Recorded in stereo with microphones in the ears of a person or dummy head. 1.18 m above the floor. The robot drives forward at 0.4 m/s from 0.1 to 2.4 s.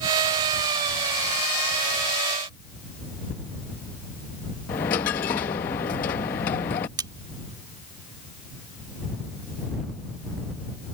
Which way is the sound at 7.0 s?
20° right (ahead or behind).